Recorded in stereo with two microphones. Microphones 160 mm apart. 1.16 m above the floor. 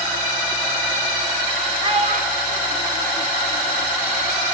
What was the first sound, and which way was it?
A child speaking, 35° right (ahead or behind).